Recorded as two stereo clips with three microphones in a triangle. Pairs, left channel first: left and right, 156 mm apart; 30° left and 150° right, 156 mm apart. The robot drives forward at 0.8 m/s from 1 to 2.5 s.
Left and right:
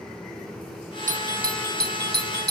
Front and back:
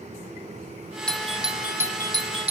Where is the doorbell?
55° right; by 2.5 s 95° right.